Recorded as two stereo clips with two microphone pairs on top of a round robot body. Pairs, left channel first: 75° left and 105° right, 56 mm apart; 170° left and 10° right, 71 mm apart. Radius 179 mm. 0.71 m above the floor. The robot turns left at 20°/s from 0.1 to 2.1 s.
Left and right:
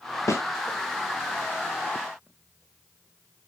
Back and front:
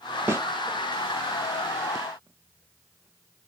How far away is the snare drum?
About 0.8 m.